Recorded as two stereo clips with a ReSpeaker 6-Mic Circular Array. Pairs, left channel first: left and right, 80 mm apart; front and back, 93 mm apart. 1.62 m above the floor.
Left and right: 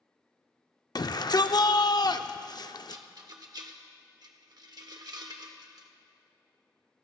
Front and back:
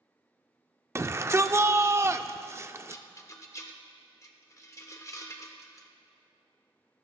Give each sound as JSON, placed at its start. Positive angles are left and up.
{"t": 0.9, "sound": "a shout", "azimuth_deg": 120, "distance_m": 0.6}
{"t": 2.9, "sound": "a rattle", "azimuth_deg": -55, "distance_m": 0.9}